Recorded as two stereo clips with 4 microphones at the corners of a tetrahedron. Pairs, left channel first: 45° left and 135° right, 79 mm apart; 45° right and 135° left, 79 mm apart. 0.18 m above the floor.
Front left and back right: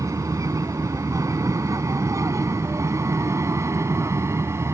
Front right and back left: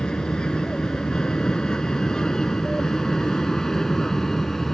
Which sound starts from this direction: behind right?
An aircraft, at 0.0 s.